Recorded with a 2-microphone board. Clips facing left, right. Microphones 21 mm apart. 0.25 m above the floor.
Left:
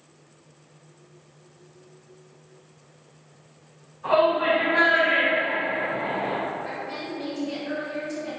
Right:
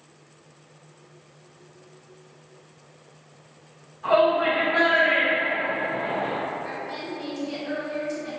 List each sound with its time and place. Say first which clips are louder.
4.0 s a shout: right 1 dB; 25° right (ahead or behind), 1.7 m; by 6.3 s 15° right (ahead or behind), 2 m
6.6 s a woman speaking: even; 15° right (ahead or behind), 2.0 m